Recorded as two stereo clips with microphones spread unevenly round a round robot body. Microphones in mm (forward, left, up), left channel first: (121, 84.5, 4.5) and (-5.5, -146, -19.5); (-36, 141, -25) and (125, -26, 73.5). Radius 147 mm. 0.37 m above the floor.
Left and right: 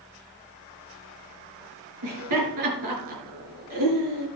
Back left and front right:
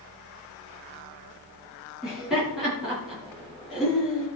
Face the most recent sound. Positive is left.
turn(degrees=-140)